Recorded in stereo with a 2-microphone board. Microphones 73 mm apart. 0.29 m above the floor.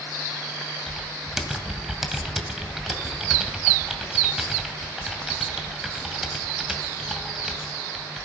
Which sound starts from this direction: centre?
Typing on a keyboard, at 0.9 s.